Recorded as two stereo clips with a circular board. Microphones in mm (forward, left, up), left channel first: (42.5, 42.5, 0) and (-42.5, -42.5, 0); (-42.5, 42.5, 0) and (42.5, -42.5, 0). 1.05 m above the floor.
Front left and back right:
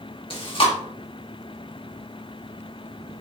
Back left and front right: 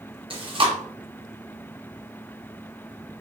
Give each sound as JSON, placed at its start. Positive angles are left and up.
{"t": 0.3, "sound": "chewing", "azimuth_deg": 0, "distance_m": 1.4}